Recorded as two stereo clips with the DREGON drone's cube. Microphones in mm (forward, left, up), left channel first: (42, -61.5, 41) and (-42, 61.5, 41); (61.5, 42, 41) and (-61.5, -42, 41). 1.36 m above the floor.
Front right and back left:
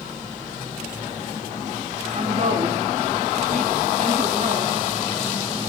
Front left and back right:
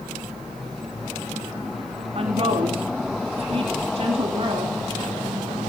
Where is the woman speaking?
165° left, 3.5 m.